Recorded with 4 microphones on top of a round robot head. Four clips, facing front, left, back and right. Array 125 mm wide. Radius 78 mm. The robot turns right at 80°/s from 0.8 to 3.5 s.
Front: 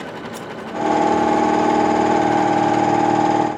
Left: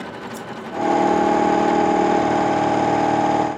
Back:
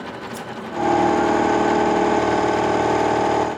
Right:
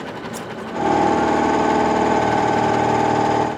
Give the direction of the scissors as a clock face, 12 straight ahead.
1 o'clock.